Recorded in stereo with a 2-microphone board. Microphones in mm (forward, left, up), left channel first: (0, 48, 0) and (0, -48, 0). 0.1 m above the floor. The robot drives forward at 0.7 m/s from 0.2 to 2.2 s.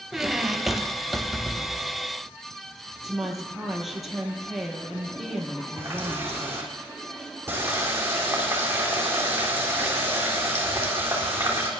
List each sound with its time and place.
0.1 s a squeak: 5° right (ahead or behind), 0.5 m; by 2.0 s centre (ahead or behind), 1.7 m
3.0 s a woman speaking: centre (ahead or behind), 3 m
5.8 s a running tap: 25° right (ahead or behind), 3 m